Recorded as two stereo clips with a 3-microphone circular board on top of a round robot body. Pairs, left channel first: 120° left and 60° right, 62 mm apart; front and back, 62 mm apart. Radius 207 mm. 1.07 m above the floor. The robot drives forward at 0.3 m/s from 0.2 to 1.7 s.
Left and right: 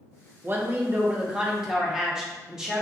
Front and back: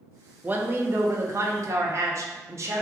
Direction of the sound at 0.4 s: 115° right.